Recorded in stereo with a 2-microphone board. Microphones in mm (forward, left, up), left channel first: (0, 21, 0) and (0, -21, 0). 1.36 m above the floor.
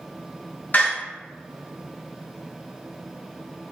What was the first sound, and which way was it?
A door slam, 50° left (ahead or behind).